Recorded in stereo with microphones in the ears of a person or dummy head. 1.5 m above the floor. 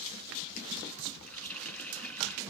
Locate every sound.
1.3 s a running tap: 5° left (ahead or behind), 1.9 m